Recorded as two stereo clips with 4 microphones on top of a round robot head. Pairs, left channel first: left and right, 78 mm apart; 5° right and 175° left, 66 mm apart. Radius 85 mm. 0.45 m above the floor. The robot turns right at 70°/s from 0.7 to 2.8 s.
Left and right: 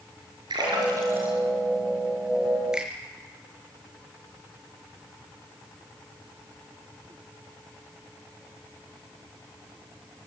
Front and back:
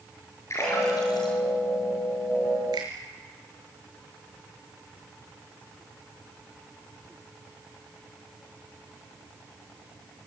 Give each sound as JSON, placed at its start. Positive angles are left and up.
{"t": 0.5, "sound": "a splash", "azimuth_deg": -55, "distance_m": 6.0}
{"t": 2.7, "sound": "a finger snap", "azimuth_deg": -170, "distance_m": 6.0}